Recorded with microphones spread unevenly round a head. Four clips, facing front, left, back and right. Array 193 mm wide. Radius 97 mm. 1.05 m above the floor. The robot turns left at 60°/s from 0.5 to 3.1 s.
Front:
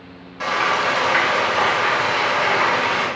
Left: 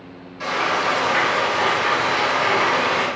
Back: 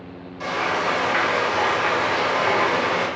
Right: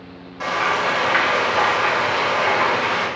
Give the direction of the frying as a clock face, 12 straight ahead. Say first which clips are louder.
Right 1 dB, front 3 dB; 2 o'clock.